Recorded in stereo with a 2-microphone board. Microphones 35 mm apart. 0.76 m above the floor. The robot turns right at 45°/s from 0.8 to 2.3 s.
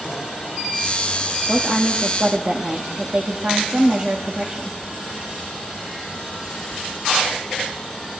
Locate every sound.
1.5 s a woman speaking: 160° right, 1.0 m; by 4.8 s 120° right, 1.0 m